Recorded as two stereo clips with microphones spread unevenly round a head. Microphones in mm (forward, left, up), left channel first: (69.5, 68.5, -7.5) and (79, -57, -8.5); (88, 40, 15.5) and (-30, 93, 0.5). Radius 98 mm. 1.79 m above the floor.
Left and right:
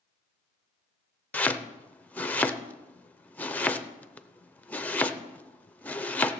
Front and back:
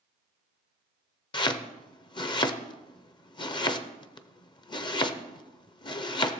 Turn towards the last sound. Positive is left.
turn(degrees=15)